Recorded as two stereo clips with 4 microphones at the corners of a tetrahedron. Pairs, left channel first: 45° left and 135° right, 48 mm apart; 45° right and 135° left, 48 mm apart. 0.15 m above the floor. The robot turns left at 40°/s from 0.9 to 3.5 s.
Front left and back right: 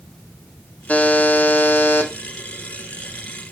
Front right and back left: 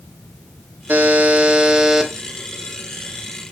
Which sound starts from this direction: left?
A buzzer, at 0.9 s.